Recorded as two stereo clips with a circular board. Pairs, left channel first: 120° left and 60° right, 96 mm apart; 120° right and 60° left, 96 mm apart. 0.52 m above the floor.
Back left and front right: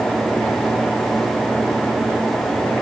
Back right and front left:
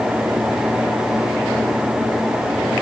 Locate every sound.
Only background noise.